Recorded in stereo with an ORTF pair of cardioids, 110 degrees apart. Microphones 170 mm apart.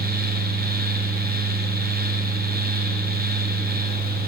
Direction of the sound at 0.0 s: 65° right.